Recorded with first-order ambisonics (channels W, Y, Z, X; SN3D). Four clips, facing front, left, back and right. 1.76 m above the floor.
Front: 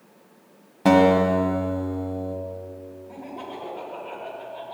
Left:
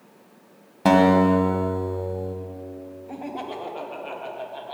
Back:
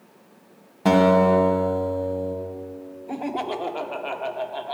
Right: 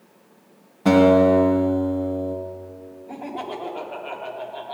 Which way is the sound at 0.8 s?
80° left.